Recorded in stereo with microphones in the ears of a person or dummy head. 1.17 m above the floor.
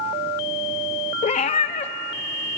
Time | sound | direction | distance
1.2 | a cat meowing | 30° left (ahead or behind) | 0.6 m